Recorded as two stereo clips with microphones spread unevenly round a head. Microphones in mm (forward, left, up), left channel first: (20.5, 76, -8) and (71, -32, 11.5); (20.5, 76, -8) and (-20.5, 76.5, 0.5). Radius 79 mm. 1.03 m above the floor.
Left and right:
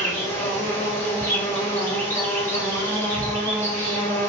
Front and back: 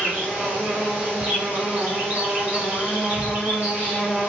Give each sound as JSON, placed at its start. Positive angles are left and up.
{"t": 0.0, "sound": "an insect", "azimuth_deg": 140, "distance_m": 1.3}